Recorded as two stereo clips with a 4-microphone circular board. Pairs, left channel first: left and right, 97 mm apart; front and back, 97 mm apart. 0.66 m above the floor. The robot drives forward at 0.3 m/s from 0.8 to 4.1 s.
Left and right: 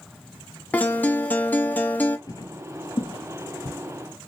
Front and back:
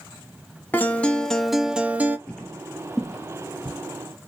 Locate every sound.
0.7 s a guitar: 40° left, 0.6 m; by 2.2 s 140° left, 0.6 m
2.3 s footsteps: 70° left, 0.7 m; by 3.8 s 105° left, 1.5 m